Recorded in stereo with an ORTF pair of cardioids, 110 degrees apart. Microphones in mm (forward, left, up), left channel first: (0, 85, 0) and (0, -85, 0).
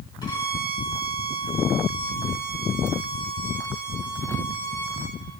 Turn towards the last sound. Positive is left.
turn(degrees=25)